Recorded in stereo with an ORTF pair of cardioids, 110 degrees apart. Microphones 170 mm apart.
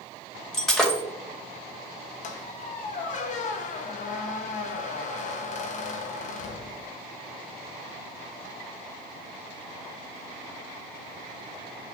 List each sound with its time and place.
0.5 s breaking glass: 5° left, 3 m
2.2 s a squeak: 50° left, 1.2 m